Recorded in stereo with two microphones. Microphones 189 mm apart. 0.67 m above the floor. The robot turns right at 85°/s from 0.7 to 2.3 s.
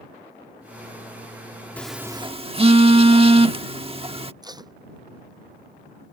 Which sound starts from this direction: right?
Tape being pulled, at 4.4 s.